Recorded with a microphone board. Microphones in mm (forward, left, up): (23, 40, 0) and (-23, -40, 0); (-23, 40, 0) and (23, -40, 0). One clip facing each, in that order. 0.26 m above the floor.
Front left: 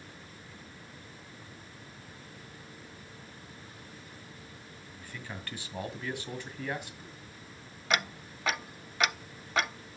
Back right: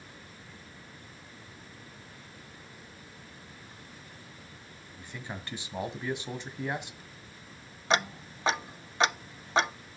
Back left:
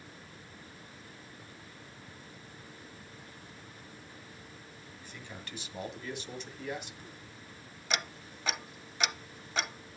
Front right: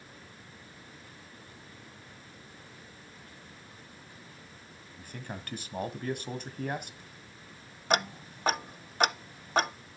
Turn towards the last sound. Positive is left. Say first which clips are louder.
# back right 4 dB, front right 8 dB
turn(degrees=-65)